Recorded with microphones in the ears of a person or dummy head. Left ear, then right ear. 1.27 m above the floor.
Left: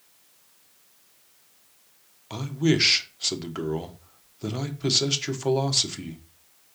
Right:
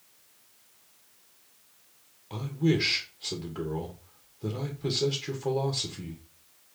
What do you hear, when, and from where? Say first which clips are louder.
2.3 s a man speaking: left 4 dB; 60° left (ahead or behind), 1.2 m